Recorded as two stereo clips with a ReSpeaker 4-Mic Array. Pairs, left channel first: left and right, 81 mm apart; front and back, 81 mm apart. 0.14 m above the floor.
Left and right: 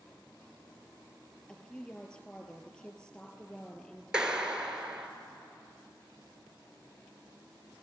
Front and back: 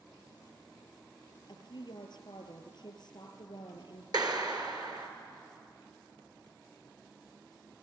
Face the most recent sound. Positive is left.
turn(degrees=-170)